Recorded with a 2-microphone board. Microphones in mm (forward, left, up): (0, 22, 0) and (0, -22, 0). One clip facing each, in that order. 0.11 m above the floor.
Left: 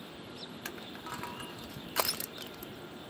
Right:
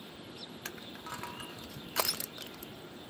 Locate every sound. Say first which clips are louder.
0.7 s crushing: left 1 dB; 5° left (ahead or behind)